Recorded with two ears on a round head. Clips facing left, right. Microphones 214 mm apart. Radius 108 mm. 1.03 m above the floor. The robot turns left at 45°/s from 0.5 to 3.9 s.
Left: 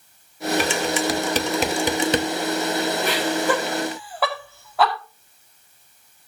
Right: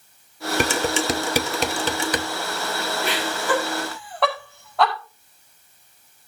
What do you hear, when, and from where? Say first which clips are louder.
0.6 s dishes clattering: right 3 dB; 45° right (ahead or behind), 0.8 m; by 2.3 s 30° left (ahead or behind), 0.8 m
3.0 s laughter: left 2 dB; 45° left (ahead or behind), 4.5 m; by 4.9 s 5° left (ahead or behind), 4.5 m